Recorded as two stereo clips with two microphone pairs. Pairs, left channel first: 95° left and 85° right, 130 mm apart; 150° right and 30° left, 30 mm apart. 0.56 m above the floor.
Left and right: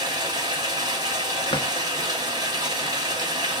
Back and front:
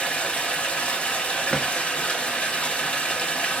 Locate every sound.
0.0 s running water: 135° right, 1.2 m
1.5 s a drawer: 145° left, 0.7 m